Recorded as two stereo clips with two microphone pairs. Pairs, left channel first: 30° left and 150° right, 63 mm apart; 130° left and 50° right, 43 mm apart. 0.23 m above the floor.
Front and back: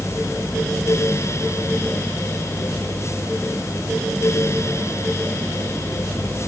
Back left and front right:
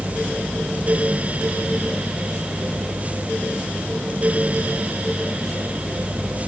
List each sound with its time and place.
Only background noise.